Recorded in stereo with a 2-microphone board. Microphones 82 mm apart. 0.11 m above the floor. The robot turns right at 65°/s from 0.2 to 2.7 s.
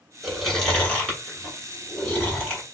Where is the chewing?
Centre (ahead or behind), 1.7 m; by 2.7 s 10° left (ahead or behind), 1.7 m.